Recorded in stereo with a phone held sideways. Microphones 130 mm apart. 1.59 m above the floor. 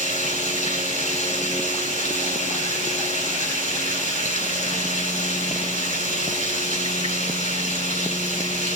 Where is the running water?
75° left (ahead or behind), 7.5 m.